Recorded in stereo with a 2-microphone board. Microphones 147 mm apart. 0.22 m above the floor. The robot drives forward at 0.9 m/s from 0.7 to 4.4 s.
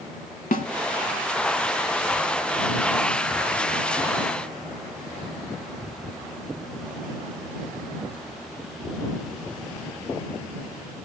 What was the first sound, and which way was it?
A snare drum, 65° left (ahead or behind).